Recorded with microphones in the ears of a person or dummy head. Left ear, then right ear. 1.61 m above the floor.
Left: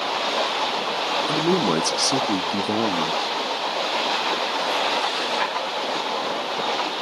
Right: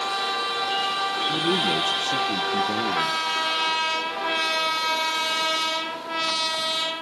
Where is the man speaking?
60° left (ahead or behind), 0.6 m.